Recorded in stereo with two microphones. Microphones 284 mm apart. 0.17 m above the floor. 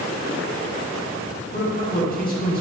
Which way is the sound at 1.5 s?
35° left (ahead or behind).